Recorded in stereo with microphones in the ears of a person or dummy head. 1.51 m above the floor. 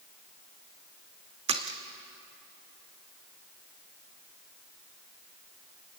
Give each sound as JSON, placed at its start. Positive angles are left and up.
{"t": 1.5, "sound": "a splash", "side_deg": -35, "distance_m": 1.0}